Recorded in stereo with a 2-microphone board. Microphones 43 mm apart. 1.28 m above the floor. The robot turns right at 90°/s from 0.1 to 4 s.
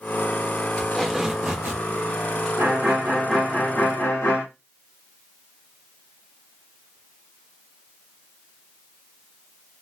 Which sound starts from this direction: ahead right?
A violin, at 2.6 s.